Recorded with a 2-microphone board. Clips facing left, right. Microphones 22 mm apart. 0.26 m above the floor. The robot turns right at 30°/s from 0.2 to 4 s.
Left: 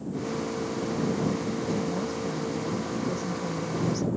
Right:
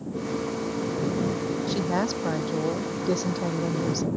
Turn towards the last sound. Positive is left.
turn(degrees=-45)